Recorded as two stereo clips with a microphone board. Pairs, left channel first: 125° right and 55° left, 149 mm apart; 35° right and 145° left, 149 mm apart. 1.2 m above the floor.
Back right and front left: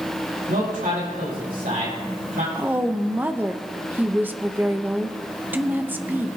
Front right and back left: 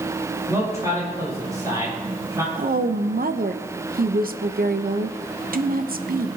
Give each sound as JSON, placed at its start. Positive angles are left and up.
{"t": 0.5, "sound": "a man speaking", "azimuth_deg": 75, "distance_m": 6.0}
{"t": 2.5, "sound": "a woman speaking", "azimuth_deg": 135, "distance_m": 0.8}